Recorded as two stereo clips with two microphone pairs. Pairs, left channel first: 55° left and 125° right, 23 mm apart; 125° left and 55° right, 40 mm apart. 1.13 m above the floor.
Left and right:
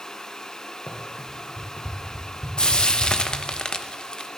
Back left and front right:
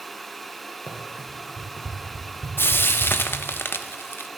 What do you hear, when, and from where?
0.9 s running footsteps: 70° left, 3 m; by 3.4 s 90° left, 4 m
2.6 s frying: 105° left, 0.8 m